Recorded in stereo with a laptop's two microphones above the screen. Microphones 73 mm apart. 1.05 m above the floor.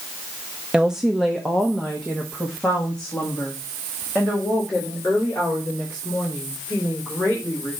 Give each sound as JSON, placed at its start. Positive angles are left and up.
{"t": 0.7, "sound": "a woman speaking", "side_deg": -15, "distance_m": 0.6}